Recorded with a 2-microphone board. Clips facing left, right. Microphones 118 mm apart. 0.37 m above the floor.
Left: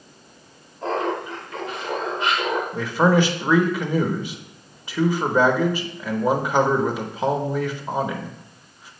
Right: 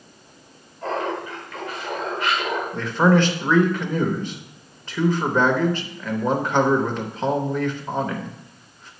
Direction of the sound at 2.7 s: 10° left (ahead or behind).